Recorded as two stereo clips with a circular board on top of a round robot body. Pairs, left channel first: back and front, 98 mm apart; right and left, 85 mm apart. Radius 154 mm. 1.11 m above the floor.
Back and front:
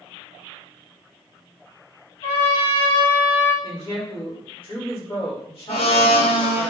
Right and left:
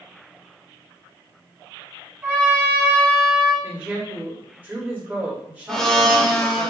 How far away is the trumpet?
About 1.9 m.